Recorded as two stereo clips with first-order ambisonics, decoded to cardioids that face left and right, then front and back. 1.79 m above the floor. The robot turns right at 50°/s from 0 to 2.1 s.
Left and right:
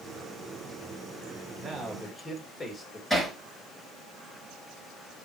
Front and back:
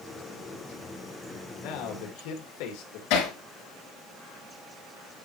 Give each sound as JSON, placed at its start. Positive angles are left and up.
{"t": 1.6, "sound": "a man speaking", "azimuth_deg": -20, "distance_m": 2.0}
{"t": 3.1, "sound": "hammering", "azimuth_deg": 0, "distance_m": 5.5}